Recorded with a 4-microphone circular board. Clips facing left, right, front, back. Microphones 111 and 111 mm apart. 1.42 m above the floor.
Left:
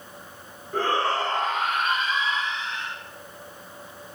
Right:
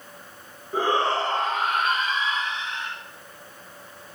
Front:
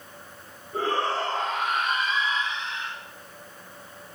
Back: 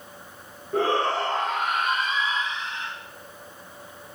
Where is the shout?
170° right, 1.3 m; by 2.9 s 130° right, 3 m.